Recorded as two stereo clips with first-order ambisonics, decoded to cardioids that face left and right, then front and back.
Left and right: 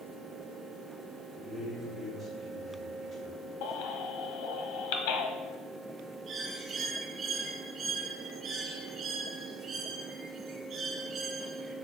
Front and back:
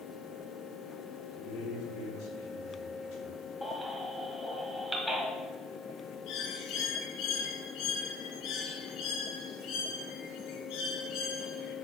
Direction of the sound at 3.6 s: 90° left.